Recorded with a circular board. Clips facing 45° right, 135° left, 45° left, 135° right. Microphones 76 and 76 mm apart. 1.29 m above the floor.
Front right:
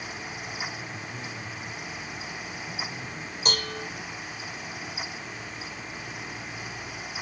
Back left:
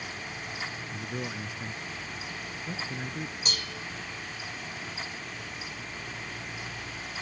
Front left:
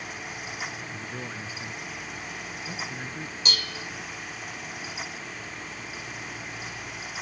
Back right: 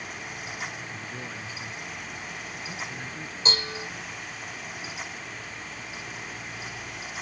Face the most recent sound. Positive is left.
turn(degrees=-75)